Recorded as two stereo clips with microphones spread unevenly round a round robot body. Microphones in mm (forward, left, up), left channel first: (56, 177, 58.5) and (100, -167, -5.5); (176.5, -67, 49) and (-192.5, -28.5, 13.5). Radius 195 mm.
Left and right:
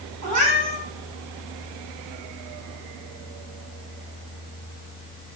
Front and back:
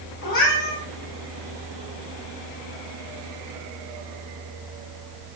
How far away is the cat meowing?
About 3.5 m.